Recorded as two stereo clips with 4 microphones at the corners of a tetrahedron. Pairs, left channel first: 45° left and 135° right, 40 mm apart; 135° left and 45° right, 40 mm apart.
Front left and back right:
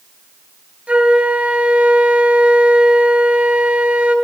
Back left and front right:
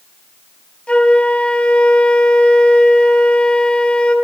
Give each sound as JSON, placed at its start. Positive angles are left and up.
{"t": 0.9, "sound": "a flute", "azimuth_deg": -175, "distance_m": 1.2}